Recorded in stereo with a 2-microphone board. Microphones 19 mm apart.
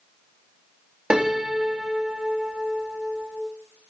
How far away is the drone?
I don't hear a drone.